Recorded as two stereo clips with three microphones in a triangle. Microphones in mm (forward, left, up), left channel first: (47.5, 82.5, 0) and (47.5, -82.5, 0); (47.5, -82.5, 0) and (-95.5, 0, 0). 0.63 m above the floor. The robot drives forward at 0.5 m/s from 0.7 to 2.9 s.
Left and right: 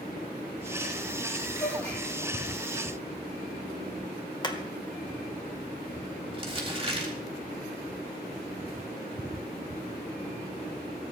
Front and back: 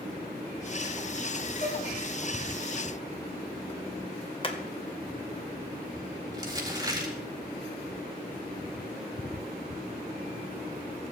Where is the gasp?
15° left, 8.5 m.